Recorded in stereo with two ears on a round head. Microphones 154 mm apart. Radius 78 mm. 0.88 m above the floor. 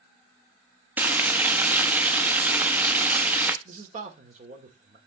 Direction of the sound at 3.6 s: 45° right (ahead or behind).